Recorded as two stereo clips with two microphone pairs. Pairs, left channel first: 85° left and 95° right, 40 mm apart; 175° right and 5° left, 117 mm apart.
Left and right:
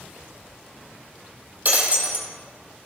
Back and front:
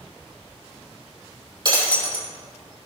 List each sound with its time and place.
1.6 s breaking glass: 50° right, 2.5 m